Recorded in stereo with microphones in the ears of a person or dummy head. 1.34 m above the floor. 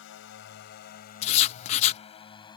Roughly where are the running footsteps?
No running footsteps in this recording.